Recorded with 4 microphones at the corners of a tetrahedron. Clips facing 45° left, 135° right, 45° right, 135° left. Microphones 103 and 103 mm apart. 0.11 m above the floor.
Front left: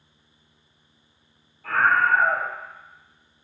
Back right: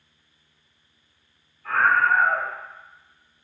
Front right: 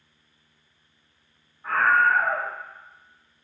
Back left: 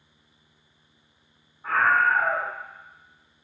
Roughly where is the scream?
Ahead left.